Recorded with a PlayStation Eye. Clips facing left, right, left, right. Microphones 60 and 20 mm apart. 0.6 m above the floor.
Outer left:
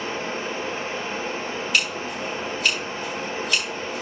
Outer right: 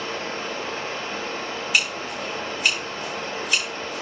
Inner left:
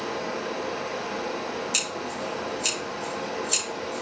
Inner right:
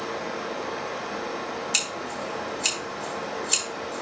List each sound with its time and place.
0.0 s running water: 20° left (ahead or behind), 5.5 m
1.7 s scissors: 5° right (ahead or behind), 5 m